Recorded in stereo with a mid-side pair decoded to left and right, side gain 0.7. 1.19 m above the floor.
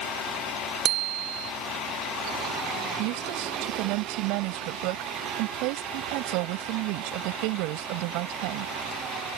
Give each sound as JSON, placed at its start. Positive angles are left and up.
{"t": 0.8, "sound": "a bicycle bell", "azimuth_deg": -55}
{"t": 3.0, "sound": "a woman speaking", "azimuth_deg": -70}